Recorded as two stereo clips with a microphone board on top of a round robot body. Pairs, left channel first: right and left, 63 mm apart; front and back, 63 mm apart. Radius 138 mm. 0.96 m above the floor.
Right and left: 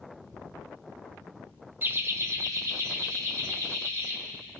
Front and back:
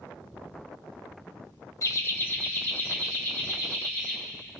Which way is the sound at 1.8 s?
35° left.